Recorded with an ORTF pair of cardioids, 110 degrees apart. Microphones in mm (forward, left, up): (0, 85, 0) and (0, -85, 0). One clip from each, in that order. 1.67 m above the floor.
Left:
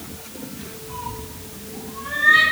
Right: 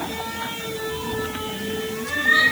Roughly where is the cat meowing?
Ahead.